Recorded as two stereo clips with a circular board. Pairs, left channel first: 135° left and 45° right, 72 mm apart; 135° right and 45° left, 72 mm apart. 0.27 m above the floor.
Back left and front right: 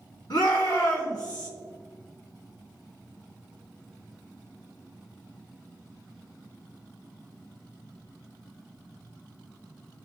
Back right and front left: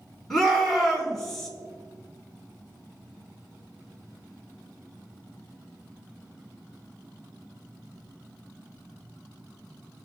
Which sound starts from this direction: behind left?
A shout, at 0.3 s.